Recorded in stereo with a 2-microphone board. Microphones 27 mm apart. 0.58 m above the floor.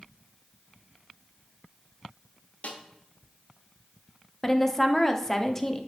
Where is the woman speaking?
15° left (ahead or behind), 0.7 m.